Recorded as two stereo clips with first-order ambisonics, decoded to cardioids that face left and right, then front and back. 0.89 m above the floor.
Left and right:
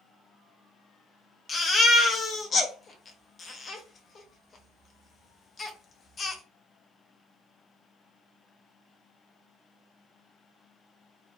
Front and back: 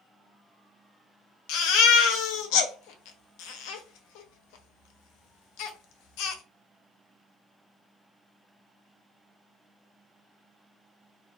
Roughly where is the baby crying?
Ahead.